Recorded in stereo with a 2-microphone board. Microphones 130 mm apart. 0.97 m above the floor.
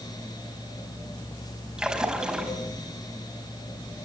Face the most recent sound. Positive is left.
turn(degrees=-5)  # may be behind; listen again after turning